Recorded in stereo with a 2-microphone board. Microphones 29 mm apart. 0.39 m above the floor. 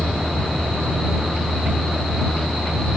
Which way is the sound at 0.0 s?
45° right (ahead or behind).